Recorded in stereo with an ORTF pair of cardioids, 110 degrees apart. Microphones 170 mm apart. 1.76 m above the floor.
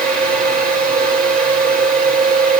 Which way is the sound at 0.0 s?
60° right.